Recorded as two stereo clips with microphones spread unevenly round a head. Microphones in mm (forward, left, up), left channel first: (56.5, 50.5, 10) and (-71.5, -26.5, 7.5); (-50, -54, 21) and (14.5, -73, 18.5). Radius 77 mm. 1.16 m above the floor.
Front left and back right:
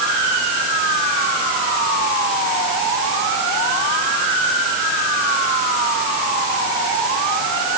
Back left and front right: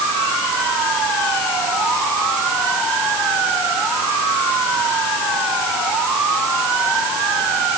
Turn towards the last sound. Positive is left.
No sound to turn to.